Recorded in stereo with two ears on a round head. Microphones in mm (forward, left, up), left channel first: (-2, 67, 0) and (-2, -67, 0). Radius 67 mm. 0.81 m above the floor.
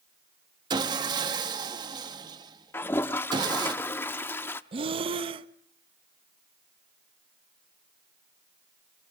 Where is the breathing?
35° right (ahead or behind), 0.7 m.